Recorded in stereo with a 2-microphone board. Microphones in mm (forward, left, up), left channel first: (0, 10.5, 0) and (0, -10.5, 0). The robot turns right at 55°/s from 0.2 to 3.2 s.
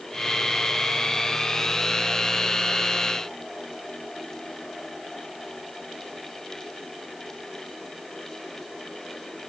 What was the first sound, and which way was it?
Only background noise.